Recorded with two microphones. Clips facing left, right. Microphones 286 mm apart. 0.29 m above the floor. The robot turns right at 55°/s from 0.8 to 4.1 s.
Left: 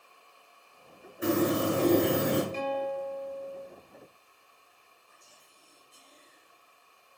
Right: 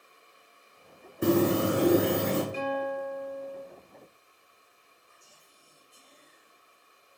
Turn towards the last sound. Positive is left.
turn(degrees=45)  # may be behind; listen again after turning